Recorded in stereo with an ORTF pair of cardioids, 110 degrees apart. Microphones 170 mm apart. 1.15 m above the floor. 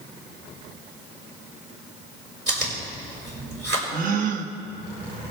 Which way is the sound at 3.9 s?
55° right.